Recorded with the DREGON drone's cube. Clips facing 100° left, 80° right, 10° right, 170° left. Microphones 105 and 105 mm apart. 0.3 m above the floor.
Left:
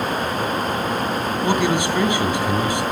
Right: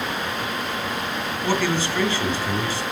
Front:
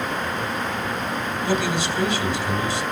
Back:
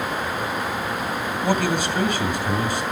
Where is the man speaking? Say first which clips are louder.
Left 3 dB, back 2 dB; 170° left, 2.5 m.